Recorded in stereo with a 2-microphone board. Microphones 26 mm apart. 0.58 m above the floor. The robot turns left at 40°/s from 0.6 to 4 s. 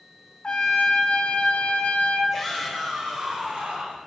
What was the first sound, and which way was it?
A trumpet, 130° left.